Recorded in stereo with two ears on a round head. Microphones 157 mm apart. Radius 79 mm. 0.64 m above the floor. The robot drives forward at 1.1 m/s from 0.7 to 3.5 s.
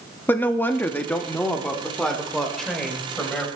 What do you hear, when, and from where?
0.3 s a woman speaking: 10° left (ahead or behind), 0.8 m; by 3.5 s 5° left (ahead or behind), 3.5 m